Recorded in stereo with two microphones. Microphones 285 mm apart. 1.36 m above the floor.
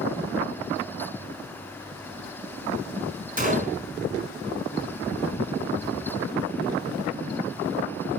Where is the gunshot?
30° right (ahead or behind), 4 m.